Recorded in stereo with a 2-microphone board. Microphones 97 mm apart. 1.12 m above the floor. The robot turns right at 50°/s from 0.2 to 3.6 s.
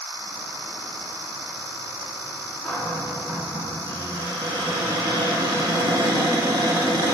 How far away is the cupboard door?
About 2 m.